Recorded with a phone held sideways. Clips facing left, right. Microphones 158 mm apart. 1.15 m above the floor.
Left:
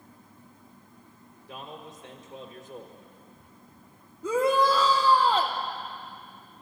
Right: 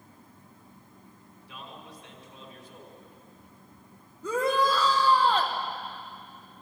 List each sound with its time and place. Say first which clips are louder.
1.5 s a man speaking: left 4 dB; 45° left (ahead or behind), 1.6 m
4.2 s a shout: left 3 dB; 10° left (ahead or behind), 0.9 m